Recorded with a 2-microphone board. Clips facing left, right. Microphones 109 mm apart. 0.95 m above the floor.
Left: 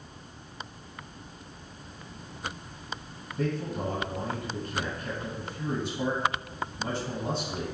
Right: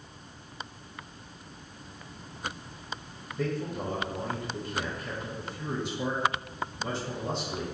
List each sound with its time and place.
3.4 s a man speaking: 40° left (ahead or behind), 1.6 m